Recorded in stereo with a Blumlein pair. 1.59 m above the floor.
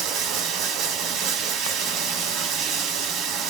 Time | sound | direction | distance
0.0 | running water | 35° right | 0.7 m